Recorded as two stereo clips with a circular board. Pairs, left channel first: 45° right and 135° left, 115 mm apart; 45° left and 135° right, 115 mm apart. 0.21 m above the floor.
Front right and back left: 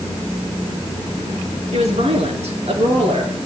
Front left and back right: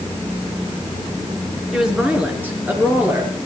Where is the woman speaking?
140° left, 3.5 m; by 3.3 s 160° left, 5 m.